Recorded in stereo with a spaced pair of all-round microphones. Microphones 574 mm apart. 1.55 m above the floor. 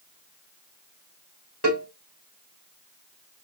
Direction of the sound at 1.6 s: 20° left (ahead or behind).